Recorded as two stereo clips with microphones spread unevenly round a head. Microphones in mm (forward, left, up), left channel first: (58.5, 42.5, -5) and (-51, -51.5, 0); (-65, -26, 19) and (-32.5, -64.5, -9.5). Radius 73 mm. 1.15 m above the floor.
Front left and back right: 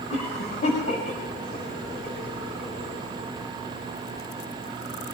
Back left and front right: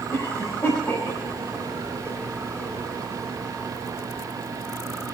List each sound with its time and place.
0.1 s a cough: 85° left, 6 m